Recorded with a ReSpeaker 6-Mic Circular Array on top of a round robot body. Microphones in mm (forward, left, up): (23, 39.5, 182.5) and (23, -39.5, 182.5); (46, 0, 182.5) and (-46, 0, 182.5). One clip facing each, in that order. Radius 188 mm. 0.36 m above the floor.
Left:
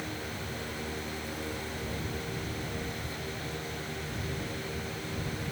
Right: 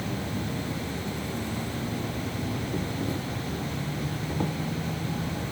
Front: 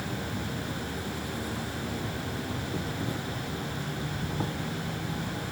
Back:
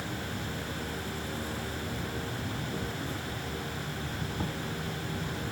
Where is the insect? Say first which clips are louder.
Right 6 dB, front 2 dB; 75° right.